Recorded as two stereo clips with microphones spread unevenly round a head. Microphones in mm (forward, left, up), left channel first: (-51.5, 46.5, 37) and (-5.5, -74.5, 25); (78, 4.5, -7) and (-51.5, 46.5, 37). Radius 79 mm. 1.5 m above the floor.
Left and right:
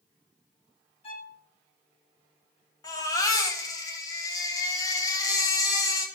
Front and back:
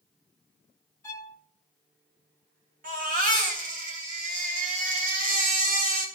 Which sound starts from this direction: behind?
A baby crying, at 2.8 s.